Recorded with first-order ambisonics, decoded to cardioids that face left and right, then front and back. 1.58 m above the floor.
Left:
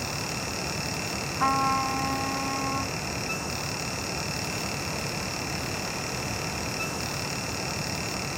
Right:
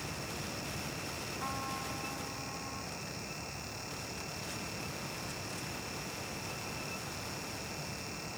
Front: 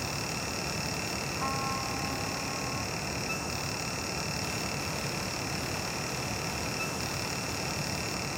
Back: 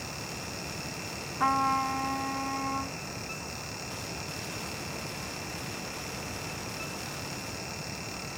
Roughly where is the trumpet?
Behind left.